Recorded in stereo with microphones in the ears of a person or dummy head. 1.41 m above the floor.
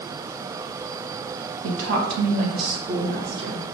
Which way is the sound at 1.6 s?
85° right.